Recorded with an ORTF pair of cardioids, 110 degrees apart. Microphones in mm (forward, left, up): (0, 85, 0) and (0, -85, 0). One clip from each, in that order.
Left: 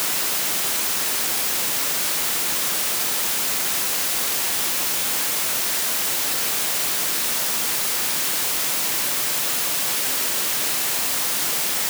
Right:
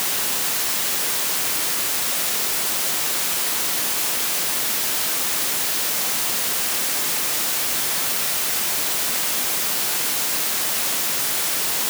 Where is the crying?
I don't hear crying.